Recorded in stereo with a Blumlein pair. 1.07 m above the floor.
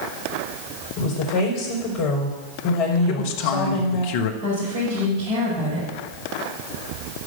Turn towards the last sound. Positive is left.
turn(degrees=-40)